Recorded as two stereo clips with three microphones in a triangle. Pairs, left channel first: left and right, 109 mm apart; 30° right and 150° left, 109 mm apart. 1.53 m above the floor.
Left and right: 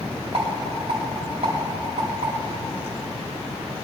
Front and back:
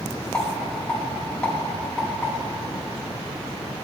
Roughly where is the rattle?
Right.